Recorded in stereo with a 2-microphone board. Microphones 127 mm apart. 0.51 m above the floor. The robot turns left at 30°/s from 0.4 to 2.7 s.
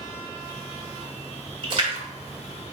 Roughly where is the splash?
Right.